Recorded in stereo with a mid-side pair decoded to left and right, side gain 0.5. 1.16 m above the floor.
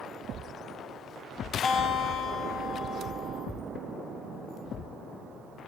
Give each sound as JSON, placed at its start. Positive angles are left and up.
{"t": 1.6, "sound": "a guitar", "azimuth_deg": 55, "distance_m": 6.0}